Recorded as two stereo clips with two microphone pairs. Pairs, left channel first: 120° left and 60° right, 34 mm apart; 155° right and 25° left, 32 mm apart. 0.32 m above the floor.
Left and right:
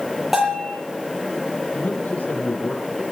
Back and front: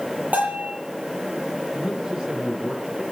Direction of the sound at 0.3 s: 25° left.